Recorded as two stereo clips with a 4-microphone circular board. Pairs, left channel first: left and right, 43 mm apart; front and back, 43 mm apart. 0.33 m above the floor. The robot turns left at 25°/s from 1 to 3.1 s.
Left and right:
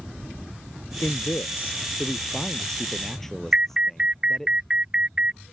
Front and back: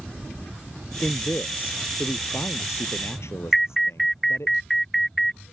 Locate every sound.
1.0 s a man speaking: 60° left; by 4.5 s 5° left
3.5 s an alarm: 85° right